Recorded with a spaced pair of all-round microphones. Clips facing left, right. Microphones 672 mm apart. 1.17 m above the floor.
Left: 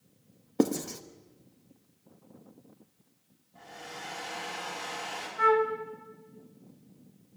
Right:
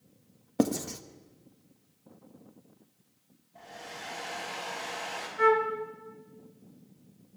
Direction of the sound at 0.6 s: 15° right (ahead or behind).